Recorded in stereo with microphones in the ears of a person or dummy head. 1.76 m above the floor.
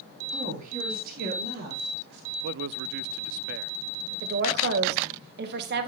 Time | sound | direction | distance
0.3 | a woman speaking | 40° right (ahead or behind) | 3.5 m
2.4 | a man speaking | 60° right (ahead or behind) | 0.5 m
4.2 | a woman speaking | 55° right (ahead or behind) | 2 m